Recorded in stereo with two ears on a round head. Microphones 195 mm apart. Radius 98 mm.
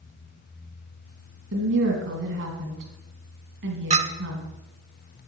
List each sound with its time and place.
1.5 s a woman speaking: 60° right (ahead or behind), 3 m
3.9 s a clink: 30° right (ahead or behind), 0.7 m